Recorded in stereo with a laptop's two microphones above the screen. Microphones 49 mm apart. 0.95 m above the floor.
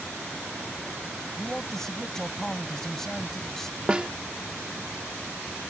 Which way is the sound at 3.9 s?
20° right (ahead or behind).